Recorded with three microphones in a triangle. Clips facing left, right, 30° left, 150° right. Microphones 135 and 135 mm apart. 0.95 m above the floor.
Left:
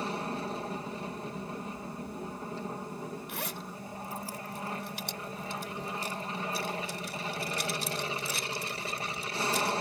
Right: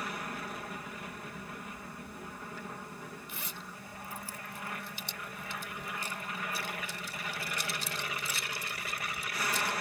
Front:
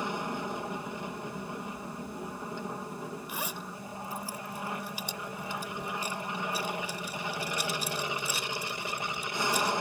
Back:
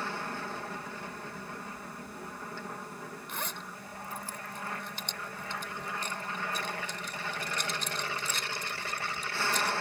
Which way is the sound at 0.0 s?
85° left.